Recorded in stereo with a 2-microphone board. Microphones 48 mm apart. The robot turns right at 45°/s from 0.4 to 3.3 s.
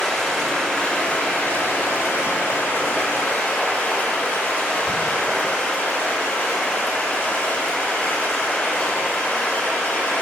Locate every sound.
0.0 s running water: 10° left, 2 m; by 10.2 s 140° left, 2 m